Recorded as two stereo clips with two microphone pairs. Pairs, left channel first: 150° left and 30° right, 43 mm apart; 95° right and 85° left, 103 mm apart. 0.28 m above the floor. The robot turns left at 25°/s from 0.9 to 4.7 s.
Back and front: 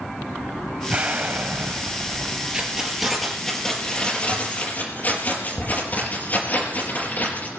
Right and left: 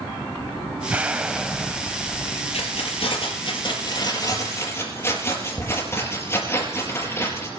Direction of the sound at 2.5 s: 110° right.